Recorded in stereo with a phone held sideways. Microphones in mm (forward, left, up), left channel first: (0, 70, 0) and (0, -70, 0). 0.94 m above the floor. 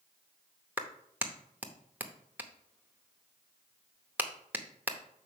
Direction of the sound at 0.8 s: 15° right (ahead or behind).